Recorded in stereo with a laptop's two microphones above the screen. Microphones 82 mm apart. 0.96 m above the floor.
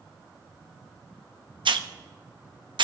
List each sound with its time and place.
1.6 s a hiss: 80° right, 0.7 m